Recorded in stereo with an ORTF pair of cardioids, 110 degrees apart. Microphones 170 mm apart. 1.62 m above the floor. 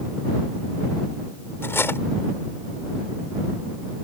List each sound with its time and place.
1.6 s cutlery clinking: 15° left